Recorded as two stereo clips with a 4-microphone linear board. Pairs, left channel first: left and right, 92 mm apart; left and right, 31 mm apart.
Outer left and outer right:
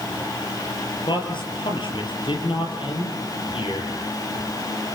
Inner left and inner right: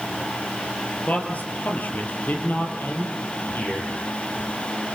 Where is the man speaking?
60° left (ahead or behind), 4.5 m; by 3.9 s 75° left (ahead or behind), 6 m.